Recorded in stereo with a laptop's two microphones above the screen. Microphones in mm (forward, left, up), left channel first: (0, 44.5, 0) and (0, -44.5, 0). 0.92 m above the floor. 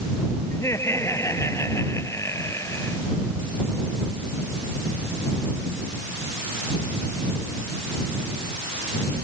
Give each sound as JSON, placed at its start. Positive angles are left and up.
{"t": 0.5, "sound": "laughter", "side_deg": 30}